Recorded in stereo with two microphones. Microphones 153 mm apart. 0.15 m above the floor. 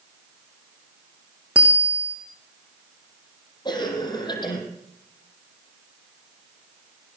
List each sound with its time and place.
1.6 s a bicycle bell: 10° right (ahead or behind), 5.5 m
3.6 s a cough: 30° left (ahead or behind), 6 m